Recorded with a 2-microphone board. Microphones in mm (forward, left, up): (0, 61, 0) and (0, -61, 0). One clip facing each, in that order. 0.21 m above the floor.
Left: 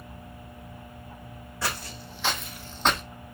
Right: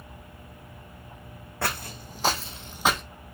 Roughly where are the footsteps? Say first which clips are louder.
Right 2 dB; right.